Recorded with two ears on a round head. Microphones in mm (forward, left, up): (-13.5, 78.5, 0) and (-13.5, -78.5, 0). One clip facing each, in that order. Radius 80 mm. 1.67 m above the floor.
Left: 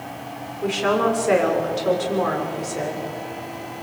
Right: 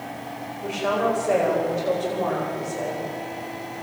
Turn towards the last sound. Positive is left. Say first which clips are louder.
# left 3 dB
turn(degrees=80)